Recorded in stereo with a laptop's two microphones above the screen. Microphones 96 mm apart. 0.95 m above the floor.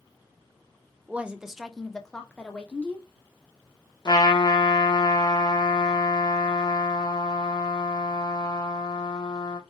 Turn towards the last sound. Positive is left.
turn(degrees=45)  # may be behind; listen again after turning